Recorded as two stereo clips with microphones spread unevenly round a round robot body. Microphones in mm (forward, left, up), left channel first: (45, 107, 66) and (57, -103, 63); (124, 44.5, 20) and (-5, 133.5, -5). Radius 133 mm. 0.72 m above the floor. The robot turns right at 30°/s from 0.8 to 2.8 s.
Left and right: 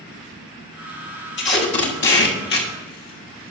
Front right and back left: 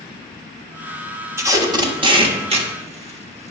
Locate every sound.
1.4 s tape being pulled: 85° left, 1.5 m; by 3.5 s 125° left, 1.5 m